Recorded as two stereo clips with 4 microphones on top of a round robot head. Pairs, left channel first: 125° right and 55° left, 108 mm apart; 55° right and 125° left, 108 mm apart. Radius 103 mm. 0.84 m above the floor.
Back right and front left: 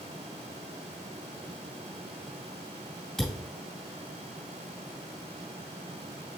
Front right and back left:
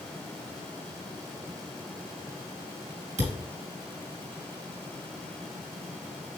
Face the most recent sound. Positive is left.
turn(degrees=150)